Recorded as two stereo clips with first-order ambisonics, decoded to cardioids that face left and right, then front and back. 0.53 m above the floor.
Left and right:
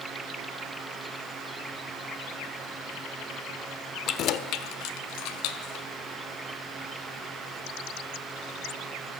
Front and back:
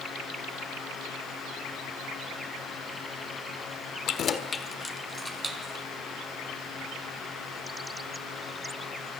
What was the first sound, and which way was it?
Keys jangling, 40° left.